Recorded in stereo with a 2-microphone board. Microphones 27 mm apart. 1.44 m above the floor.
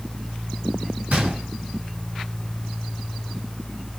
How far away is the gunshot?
About 2.5 m.